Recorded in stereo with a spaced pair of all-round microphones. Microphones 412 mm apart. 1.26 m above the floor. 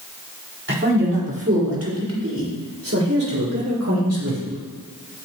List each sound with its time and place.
0.7 s a man speaking: 30° right (ahead or behind), 4 m; by 4.6 s 45° right (ahead or behind), 6 m